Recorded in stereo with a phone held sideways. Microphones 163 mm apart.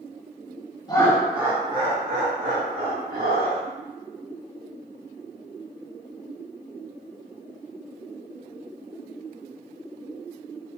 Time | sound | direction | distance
0.9 | laughter | 25° left (ahead or behind) | 0.5 m